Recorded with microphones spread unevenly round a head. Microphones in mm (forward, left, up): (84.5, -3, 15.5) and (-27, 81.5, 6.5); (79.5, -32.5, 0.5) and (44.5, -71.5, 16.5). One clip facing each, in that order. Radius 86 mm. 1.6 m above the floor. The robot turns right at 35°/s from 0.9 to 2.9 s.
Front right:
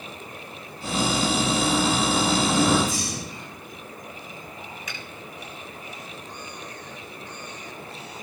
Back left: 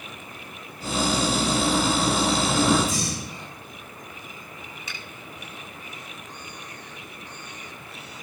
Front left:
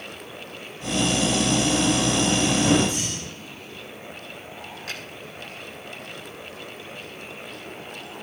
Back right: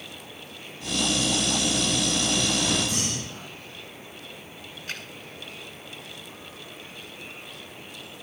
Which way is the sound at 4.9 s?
85° left.